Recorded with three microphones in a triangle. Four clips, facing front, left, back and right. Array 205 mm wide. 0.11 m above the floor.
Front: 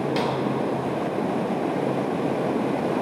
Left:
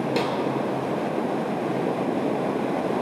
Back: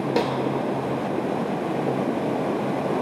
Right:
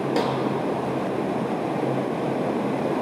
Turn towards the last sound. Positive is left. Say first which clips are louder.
# right 3 dB, back 4 dB
turn(degrees=-155)